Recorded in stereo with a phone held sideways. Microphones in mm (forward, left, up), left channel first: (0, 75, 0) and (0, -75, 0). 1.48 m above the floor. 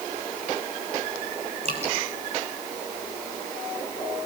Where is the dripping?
50° right (ahead or behind), 6 m.